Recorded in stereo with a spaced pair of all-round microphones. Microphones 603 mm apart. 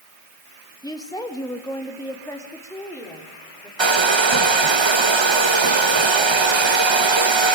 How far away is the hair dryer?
About 0.9 m.